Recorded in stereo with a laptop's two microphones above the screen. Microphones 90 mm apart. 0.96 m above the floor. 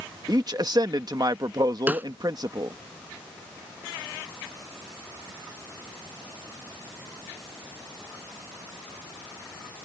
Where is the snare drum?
20° right (ahead or behind).